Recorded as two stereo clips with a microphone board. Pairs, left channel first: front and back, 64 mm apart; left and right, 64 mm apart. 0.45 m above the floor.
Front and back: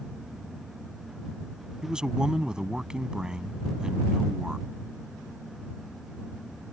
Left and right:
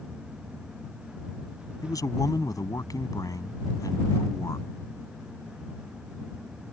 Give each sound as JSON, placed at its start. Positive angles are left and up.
{"t": 1.8, "sound": "a man speaking", "azimuth_deg": 100}